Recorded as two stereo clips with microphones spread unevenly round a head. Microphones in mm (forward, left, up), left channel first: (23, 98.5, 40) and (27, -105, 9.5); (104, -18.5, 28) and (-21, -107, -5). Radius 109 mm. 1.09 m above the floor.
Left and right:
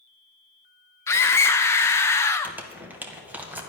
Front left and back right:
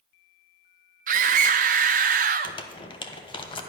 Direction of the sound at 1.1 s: 170° left.